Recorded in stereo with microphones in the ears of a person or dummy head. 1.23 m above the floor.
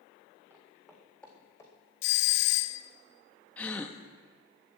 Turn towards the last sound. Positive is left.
turn(degrees=10)  # may be behind; listen again after turning